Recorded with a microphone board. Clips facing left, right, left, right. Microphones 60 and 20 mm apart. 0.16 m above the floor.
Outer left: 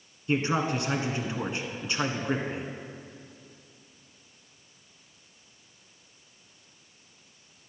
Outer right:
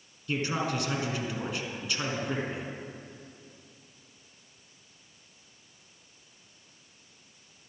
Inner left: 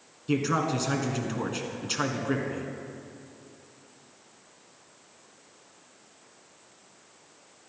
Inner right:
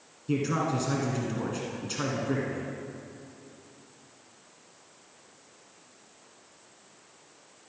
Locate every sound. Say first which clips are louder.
0.3 s a man speaking: outer left 4 dB, inner left 2 dB; 30° left (ahead or behind), 1.5 m